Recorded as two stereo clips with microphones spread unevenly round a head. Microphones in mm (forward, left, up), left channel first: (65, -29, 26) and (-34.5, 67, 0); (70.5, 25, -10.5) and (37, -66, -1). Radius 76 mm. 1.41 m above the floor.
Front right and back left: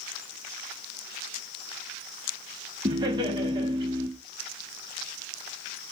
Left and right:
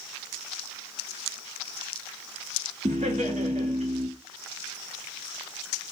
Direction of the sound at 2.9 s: 165° right.